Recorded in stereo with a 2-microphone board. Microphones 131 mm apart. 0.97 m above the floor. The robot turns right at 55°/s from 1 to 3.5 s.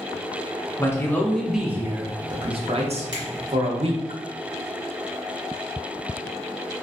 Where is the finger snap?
30° right (ahead or behind), 1.3 m; by 3.2 s 25° right (ahead or behind), 1.3 m.